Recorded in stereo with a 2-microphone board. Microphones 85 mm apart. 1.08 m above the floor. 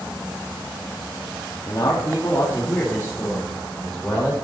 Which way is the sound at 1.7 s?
45° left (ahead or behind).